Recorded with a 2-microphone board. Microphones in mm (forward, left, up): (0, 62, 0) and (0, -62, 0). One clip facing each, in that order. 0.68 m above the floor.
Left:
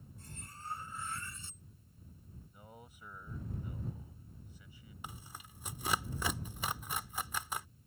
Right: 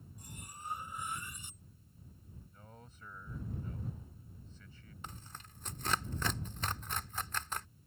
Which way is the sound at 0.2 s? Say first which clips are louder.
Right 1 dB; 15° right (ahead or behind).